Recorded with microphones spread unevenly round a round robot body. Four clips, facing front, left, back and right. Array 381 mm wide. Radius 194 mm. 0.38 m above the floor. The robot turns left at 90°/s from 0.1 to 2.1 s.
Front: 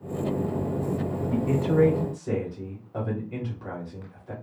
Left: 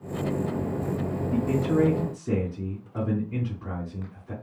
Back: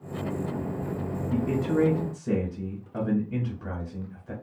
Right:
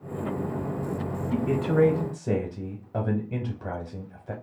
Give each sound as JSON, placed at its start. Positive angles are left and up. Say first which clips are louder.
{"t": 1.3, "sound": "a man speaking", "louder": "even, front 1 dB", "azimuth_deg": -35, "distance_m": 1.3}